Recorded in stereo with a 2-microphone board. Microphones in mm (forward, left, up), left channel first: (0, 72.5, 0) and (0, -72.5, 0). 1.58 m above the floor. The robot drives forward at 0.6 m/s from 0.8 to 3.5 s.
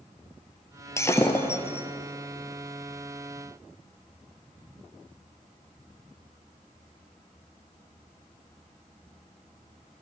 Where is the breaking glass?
20° left (ahead or behind), 2 m; by 1.9 s 15° left (ahead or behind), 2.5 m.